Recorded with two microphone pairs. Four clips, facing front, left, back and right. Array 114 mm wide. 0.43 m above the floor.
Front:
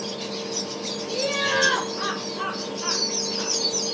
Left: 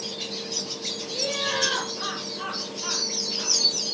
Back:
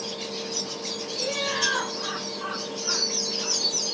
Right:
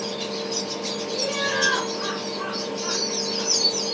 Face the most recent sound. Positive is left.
turn(degrees=-5)